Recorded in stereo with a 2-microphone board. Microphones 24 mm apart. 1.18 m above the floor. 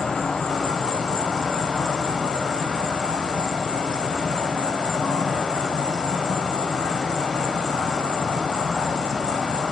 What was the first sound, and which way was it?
An insect, 35° left (ahead or behind).